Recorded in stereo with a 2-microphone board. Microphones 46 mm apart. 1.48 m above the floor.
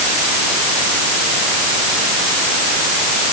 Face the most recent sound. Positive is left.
No sound to turn to.